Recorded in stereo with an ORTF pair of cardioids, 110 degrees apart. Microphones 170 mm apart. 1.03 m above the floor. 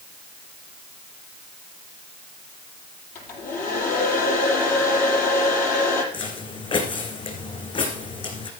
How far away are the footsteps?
About 4 m.